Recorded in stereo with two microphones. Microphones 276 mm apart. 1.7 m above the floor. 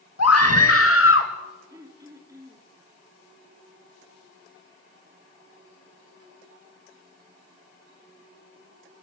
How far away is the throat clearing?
About 4 m.